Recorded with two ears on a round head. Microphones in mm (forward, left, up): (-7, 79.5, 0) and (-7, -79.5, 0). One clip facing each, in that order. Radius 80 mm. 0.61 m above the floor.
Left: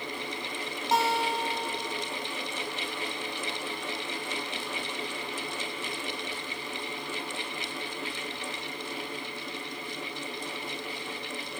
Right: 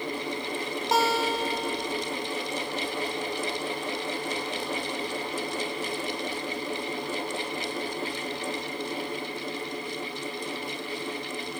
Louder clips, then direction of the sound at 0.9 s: Right 2 dB; 60° right (ahead or behind).